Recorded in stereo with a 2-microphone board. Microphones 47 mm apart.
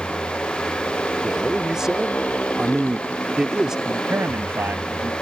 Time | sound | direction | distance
0.0 | a motorcycle | 35° left (ahead or behind) | ?
1.2 | a man speaking | 15° right (ahead or behind) | ?
3.9 | a man speaking | 70° right (ahead or behind) | ?